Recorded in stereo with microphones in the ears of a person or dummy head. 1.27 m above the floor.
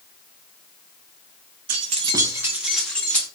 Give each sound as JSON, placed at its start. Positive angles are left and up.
{"t": 1.7, "sound": "keys jangling", "side_deg": -50, "distance_m": 0.6}